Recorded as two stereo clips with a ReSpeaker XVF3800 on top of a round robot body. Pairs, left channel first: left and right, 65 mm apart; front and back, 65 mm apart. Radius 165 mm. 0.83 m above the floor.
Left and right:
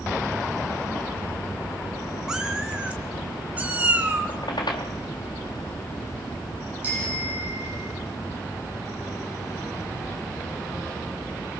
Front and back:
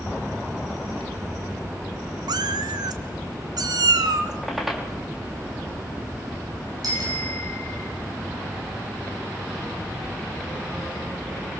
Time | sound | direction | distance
2.3 | a cat meowing | 170° right | 0.8 m
4.3 | a squeak | 95° left | 4 m
6.8 | a bicycle bell | 155° right | 7 m